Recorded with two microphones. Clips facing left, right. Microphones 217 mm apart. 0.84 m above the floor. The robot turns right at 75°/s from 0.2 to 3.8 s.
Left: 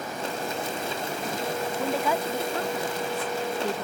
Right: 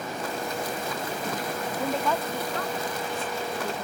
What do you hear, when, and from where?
1.8 s a woman speaking: 10° right; by 3.9 s 140° left